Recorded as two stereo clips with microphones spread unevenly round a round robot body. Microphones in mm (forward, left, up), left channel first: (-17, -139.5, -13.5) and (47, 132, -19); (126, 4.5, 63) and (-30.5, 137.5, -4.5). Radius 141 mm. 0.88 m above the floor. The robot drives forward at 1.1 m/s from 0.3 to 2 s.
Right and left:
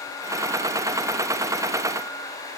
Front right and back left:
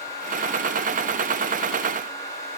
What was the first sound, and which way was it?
Only background noise.